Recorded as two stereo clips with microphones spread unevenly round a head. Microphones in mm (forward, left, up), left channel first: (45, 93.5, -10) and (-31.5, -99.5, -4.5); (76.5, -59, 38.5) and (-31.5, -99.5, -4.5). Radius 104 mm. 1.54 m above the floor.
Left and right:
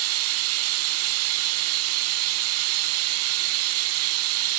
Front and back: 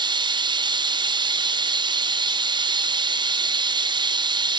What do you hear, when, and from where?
0.0 s running water: 100° right, 0.9 m